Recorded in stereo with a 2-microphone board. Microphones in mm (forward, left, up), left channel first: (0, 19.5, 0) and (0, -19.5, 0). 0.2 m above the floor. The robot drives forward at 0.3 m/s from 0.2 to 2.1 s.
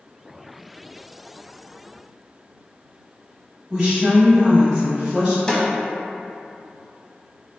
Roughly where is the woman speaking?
Centre.